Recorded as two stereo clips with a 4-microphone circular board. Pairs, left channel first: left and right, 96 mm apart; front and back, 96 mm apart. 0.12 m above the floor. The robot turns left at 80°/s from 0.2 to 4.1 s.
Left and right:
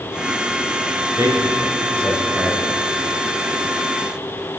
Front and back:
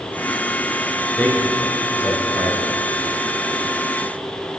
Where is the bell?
No bell in this recording.